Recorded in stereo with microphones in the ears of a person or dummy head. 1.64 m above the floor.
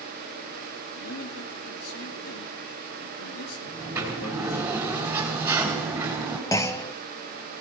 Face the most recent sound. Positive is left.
turn(degrees=15)  # may be behind; listen again after turning